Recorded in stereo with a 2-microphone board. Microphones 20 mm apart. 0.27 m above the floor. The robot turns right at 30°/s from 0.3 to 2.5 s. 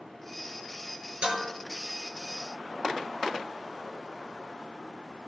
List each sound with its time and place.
1.2 s dishes clattering: 55° right (ahead or behind), 3 m; by 1.5 s 50° right (ahead or behind), 3 m